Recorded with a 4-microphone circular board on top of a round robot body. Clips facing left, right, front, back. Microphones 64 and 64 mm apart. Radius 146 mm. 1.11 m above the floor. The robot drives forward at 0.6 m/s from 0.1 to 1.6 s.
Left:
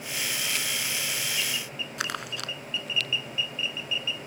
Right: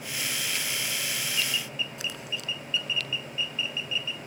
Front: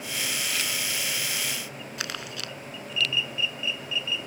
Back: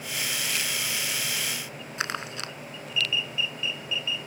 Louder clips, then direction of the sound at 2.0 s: Left 3 dB, back 5 dB; 120° left.